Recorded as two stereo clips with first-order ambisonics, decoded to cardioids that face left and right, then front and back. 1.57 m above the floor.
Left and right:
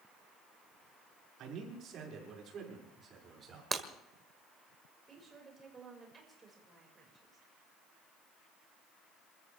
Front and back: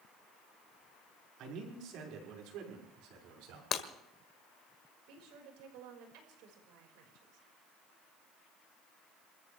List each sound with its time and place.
1.4 s a man speaking: 135° right, 5.5 m; by 3.6 s 160° right, 6.5 m
3.7 s breaking glass: 25° right, 1.5 m
5.1 s a woman speaking: 165° right, 5.5 m